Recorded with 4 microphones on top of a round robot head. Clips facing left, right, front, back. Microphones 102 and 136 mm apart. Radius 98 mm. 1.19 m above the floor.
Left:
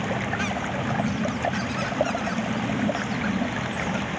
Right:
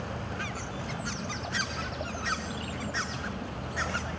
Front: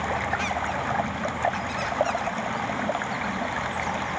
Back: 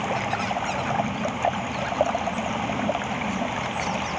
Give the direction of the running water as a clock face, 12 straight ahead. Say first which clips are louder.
Left 9 dB, back 1 dB; 8 o'clock.